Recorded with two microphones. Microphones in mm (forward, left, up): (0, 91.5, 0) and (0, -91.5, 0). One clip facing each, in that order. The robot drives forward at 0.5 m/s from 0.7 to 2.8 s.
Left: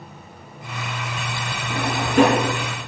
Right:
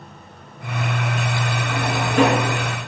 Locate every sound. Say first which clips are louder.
1.7 s a drawer: left 2 dB; 55° left (ahead or behind), 1.4 m; by 2.5 s 45° left (ahead or behind), 1.7 m